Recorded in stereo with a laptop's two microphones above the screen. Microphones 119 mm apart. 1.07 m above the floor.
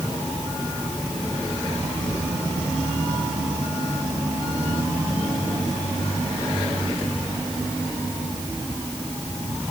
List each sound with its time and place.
Only background noise.